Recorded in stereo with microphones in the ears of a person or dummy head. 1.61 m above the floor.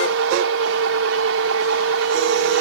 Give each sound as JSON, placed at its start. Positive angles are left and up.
{"t": 0.0, "sound": "a machine running", "side_deg": -80}